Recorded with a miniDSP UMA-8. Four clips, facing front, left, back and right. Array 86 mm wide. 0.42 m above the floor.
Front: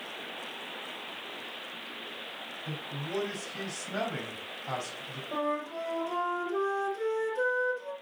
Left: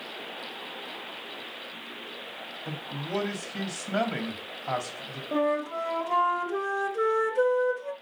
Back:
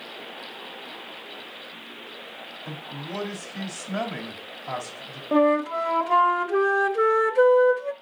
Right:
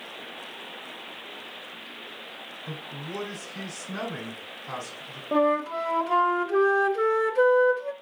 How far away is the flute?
About 0.9 m.